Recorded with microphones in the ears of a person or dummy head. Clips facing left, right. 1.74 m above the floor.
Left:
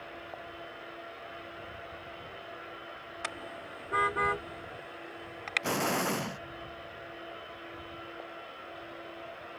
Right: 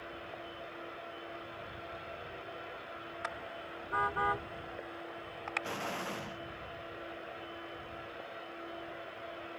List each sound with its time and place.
3.2 s a car horn: 40° left (ahead or behind); by 5.7 s 25° left (ahead or behind)
5.6 s an explosion: 60° left (ahead or behind)